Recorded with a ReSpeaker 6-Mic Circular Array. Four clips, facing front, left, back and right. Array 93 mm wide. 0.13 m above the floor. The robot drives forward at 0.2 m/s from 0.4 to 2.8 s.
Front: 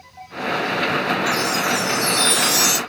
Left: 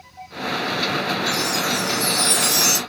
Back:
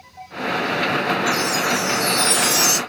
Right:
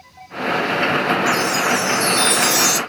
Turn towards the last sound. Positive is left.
turn(degrees=160)